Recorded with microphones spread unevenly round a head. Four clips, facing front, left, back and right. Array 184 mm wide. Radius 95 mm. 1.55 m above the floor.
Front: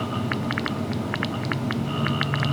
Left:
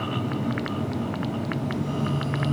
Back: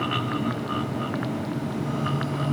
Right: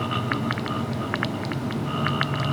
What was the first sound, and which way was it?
Only background noise.